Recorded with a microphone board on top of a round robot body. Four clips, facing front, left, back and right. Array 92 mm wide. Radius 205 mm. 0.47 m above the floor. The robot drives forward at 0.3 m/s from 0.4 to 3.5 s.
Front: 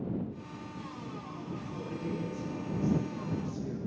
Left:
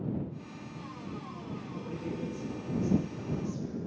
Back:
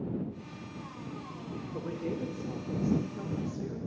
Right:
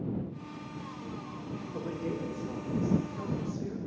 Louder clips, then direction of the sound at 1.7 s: Right 3 dB, back 3 dB; 135° right.